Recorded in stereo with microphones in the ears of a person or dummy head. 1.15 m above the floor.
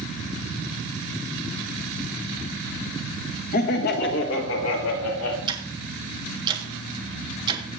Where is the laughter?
45° left (ahead or behind), 1.0 m; by 5.4 s 80° left, 3 m.